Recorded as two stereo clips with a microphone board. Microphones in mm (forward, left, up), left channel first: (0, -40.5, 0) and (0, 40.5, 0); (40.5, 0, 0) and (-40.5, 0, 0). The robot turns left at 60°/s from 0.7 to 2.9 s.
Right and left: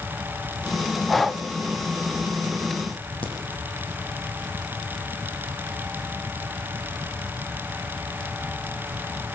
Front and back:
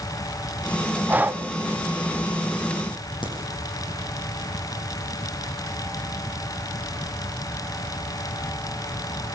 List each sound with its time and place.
1.1 s breathing: 170° right, 0.8 m; by 1.4 s 170° left, 0.8 m
3.2 s a crack: 15° right, 8 m